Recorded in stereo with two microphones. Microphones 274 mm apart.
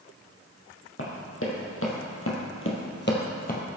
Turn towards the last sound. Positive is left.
turn(degrees=30)  # may be behind; listen again after turning